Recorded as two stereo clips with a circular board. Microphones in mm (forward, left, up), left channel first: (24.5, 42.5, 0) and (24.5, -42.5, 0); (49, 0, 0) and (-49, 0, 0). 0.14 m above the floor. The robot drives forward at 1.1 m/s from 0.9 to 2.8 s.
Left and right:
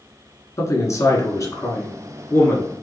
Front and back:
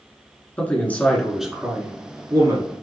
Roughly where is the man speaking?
Ahead left.